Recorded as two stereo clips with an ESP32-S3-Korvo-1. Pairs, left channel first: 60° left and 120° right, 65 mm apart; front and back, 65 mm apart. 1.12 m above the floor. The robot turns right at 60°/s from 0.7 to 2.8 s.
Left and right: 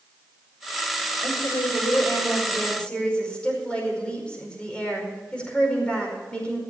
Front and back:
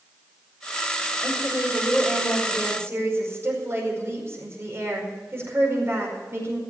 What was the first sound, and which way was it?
A woman speaking, 40° left.